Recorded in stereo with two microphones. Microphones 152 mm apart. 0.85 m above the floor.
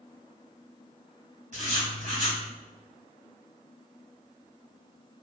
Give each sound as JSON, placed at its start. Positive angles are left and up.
{"t": 1.5, "sound": "writing", "side_deg": -50, "distance_m": 1.5}